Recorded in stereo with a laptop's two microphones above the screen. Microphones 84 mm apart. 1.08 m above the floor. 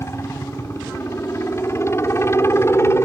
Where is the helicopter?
35° left (ahead or behind); by 3.1 s 30° left (ahead or behind).